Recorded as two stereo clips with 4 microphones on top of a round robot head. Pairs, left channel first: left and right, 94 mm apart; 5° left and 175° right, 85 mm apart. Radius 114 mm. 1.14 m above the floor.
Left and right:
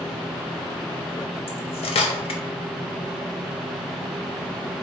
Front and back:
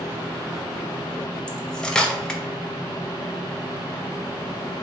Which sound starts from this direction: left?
Cutlery clinking, at 1.5 s.